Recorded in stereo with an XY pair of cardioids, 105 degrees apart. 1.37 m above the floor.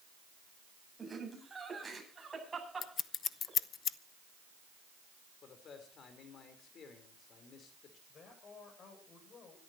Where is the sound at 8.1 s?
50° left, 8 m.